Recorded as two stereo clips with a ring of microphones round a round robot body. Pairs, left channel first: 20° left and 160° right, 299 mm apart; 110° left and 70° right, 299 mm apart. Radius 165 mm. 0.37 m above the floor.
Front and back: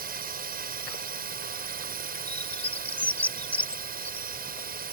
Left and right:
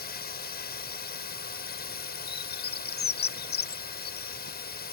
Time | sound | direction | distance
0.0 | a drone | 155° left | ?
2.3 | a bird | 105° left | ?